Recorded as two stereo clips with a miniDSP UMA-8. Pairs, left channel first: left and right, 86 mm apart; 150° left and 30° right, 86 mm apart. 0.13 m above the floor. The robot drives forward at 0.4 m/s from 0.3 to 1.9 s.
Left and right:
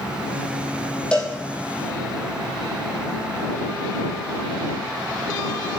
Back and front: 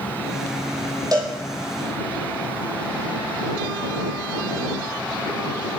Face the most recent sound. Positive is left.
turn(degrees=15)